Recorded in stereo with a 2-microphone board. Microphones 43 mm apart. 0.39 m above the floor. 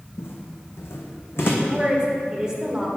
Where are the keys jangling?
No keys jangling in this recording.